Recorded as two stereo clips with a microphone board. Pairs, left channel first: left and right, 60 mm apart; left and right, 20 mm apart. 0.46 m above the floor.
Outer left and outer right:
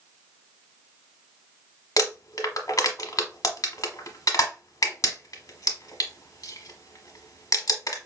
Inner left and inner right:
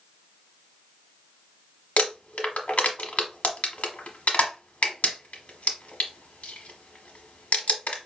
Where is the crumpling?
75° left (ahead or behind), 0.8 m.